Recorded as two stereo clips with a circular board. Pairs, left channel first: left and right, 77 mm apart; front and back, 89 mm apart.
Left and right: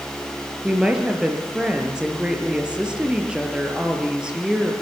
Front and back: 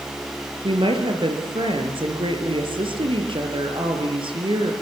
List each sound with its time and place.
0.6 s a woman speaking: 170° right, 5.5 m